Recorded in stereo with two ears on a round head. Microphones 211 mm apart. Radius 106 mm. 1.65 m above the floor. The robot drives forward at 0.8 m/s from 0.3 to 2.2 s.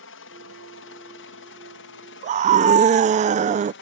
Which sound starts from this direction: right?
A scream, at 2.2 s.